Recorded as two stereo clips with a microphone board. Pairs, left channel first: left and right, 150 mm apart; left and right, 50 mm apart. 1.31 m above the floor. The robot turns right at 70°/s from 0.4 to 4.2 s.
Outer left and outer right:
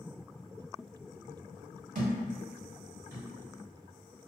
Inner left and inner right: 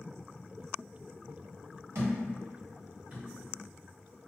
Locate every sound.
1.9 s a thud: 65° right (ahead or behind), 1.6 m; by 4.3 s 45° left (ahead or behind), 1.6 m